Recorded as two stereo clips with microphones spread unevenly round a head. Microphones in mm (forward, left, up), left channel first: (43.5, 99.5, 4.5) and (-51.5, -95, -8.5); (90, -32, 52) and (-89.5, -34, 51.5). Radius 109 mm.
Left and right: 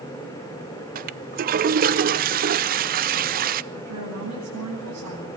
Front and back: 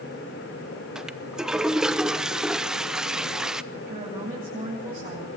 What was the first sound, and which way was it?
A toilet flushing, 95° right.